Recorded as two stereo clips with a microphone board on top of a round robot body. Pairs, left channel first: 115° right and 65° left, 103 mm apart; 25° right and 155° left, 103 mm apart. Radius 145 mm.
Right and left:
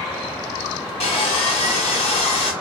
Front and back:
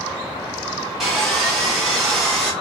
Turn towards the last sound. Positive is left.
turn(degrees=-115)